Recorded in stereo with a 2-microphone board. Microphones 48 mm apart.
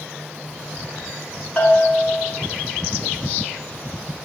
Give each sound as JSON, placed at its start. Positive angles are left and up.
{"t": 1.6, "sound": "a bell", "side_deg": 30, "distance_m": 1.1}